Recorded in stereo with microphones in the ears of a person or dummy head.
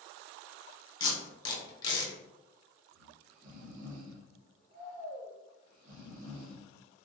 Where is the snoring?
50° right (ahead or behind), 0.8 m.